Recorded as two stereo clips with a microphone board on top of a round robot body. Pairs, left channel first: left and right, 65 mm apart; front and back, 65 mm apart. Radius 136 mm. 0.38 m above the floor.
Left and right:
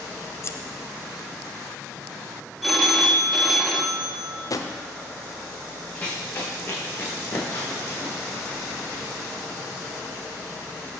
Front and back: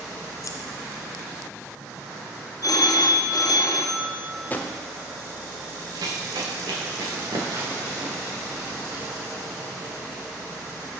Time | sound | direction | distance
0.4 | scissors | 40° left | 0.7 m
2.6 | a phone ringing | straight ahead | 1.5 m
4.5 | a drawer | 65° left | 1.0 m
6.0 | running footsteps | 160° left | 2.5 m